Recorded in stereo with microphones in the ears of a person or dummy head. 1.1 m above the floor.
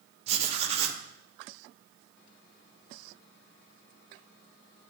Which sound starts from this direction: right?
Writing, at 0.3 s.